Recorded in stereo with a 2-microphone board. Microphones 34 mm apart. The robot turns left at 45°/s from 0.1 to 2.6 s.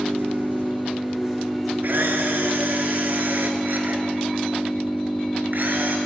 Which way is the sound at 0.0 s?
110° right.